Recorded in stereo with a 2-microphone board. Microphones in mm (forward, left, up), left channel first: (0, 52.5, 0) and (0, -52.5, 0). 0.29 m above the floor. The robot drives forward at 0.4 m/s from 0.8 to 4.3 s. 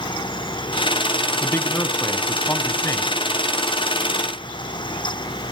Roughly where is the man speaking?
Left.